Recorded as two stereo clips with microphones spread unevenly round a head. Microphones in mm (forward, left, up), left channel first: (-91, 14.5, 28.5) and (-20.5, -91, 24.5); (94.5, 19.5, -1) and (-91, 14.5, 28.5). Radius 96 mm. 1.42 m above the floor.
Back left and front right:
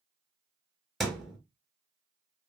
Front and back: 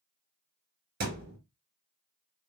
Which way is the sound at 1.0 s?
150° right.